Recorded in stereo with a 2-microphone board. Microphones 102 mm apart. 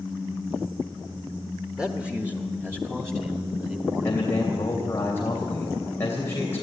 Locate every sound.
1.8 s a man speaking: 5° right (ahead or behind), 1.3 m; by 4.9 s 30° right (ahead or behind), 4 m
4.0 s a man speaking: 25° left (ahead or behind), 2.5 m